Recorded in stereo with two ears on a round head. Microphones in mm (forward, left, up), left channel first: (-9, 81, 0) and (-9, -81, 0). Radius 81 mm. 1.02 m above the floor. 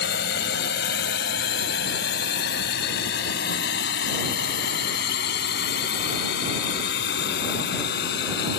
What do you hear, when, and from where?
0.0 s a drone: 60° left (ahead or behind)